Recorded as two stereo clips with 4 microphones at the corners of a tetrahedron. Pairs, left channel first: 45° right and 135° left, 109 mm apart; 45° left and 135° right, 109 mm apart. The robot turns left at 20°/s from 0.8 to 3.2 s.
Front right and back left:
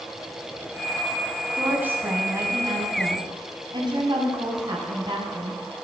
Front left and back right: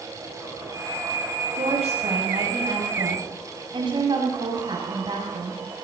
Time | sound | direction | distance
1.6 | a woman speaking | 145° right | 5.5 m